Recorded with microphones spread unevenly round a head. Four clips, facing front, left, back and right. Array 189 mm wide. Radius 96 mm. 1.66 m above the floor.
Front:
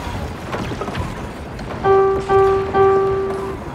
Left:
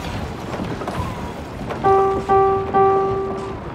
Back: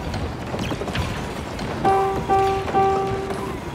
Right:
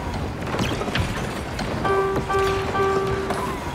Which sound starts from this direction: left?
A piano, at 1.8 s.